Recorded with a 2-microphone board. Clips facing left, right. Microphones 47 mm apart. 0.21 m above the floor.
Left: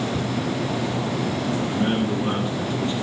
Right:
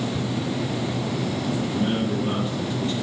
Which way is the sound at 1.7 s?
40° left (ahead or behind).